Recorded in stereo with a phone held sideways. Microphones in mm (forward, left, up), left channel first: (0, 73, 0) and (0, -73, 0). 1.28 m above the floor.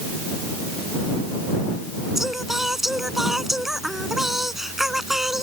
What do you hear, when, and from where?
2.1 s singing: centre (ahead or behind)